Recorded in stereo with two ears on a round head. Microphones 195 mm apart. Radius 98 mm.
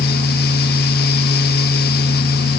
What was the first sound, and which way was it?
Only background noise.